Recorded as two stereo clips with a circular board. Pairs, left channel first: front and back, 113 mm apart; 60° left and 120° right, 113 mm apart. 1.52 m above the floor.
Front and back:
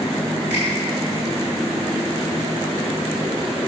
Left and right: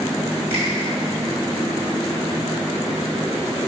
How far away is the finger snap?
About 4 m.